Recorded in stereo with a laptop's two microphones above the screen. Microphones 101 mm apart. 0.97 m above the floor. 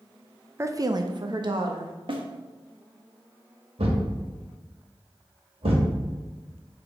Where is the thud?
75° right (ahead or behind), 2 m.